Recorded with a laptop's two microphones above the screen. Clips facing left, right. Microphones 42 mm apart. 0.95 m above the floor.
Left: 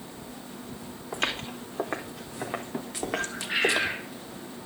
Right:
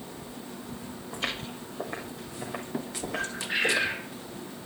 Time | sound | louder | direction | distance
1.1 | footsteps | left 4 dB | 75° left (ahead or behind) | 4.5 m
3.1 | a bird | left 1 dB | 15° left (ahead or behind) | 4.5 m